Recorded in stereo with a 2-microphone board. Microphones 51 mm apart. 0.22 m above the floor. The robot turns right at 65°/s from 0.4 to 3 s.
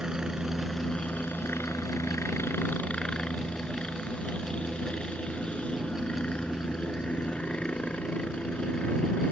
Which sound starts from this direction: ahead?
A helicopter, at 0.0 s.